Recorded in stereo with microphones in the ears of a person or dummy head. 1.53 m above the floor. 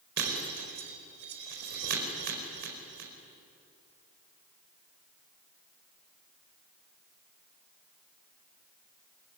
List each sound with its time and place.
0.2 s breaking glass: 60° right (ahead or behind), 5 m